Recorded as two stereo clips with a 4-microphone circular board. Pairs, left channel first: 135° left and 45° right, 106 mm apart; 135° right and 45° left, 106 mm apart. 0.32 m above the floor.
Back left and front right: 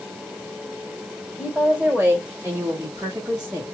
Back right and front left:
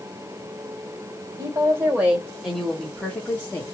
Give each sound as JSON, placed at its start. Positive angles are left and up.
{"t": 1.4, "sound": "a woman speaking", "azimuth_deg": 20, "distance_m": 1.5}